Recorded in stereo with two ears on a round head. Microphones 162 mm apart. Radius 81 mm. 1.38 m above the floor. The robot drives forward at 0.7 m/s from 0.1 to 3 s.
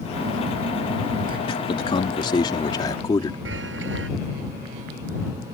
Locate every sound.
0.1 s a phone buzzing: 70° right (ahead or behind); by 1.4 s 50° right (ahead or behind)
1.5 s a man speaking: 30° left (ahead or behind); by 3.4 s 20° left (ahead or behind)
3.5 s a chime: 75° right (ahead or behind)